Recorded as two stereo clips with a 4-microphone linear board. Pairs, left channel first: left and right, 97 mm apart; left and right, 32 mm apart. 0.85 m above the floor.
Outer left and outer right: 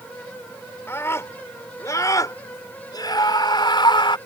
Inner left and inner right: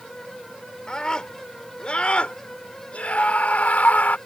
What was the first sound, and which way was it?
A scream, 25° left (ahead or behind).